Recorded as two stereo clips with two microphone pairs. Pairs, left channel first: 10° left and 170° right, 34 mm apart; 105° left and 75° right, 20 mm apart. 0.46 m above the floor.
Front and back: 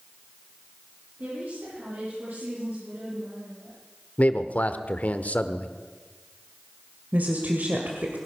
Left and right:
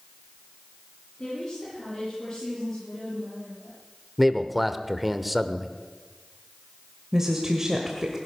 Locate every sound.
1.2 s a woman speaking: 170° left, 9 m
4.2 s a man speaking: 10° left, 1.1 m
7.1 s a woman speaking: 145° right, 1.8 m